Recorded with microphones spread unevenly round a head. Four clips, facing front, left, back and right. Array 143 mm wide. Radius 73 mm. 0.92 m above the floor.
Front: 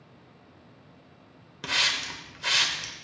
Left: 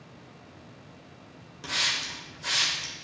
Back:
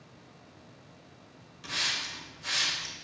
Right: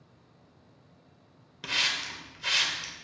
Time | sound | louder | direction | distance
1.6 | a hiss | even, front 6 dB | 5° left | 1.5 m